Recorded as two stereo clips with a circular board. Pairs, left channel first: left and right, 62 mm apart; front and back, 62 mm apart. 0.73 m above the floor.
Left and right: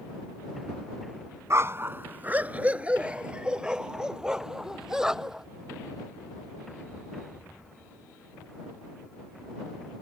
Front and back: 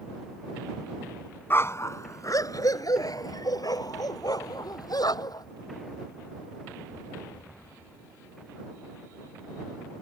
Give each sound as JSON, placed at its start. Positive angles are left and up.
{"t": 1.5, "sound": "a dog barking", "azimuth_deg": -50}